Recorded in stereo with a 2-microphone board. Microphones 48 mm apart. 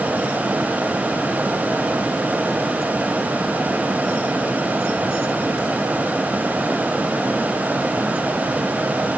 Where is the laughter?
I don't hear laughter.